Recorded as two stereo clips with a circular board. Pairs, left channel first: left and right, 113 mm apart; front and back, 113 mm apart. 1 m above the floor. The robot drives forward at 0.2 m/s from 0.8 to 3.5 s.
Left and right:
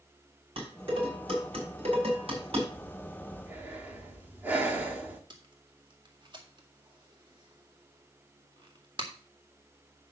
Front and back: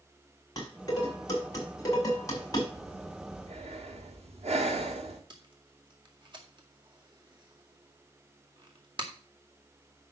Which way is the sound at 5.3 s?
135° right.